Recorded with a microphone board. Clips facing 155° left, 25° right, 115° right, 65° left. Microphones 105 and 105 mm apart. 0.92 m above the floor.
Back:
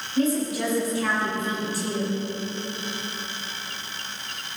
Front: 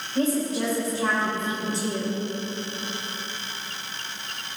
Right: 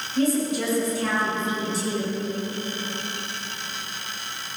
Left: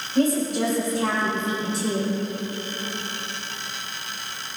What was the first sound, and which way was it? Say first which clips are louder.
A woman speaking: back 1 dB, left 2 dB; 30° left.